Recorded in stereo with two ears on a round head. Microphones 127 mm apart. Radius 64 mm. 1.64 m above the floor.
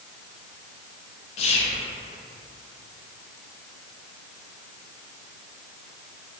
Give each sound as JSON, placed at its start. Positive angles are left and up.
{"t": 1.4, "sound": "whispering", "side_deg": 45, "distance_m": 0.6}